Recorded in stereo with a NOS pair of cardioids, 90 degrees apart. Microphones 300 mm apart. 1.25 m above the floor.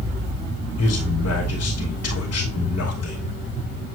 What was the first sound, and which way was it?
A man speaking, 55° left.